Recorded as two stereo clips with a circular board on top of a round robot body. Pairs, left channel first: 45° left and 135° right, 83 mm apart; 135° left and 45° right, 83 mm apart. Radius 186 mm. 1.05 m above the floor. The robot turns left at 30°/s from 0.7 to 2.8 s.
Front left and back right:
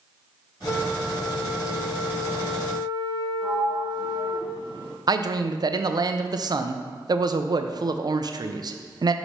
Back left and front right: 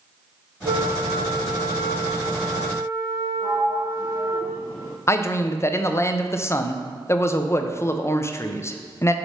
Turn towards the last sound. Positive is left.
turn(degrees=-170)